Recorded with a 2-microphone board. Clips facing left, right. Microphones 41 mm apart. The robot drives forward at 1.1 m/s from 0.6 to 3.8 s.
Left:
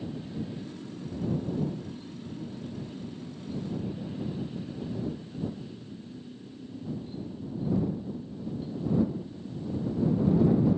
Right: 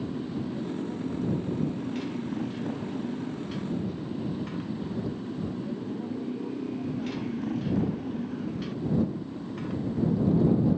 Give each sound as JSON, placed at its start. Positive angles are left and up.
{"t": 0.0, "sound": "a motorcycle", "side_deg": -80}